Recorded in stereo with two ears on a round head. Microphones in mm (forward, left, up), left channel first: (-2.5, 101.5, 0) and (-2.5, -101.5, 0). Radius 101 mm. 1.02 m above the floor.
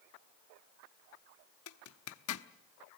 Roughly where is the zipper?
Left.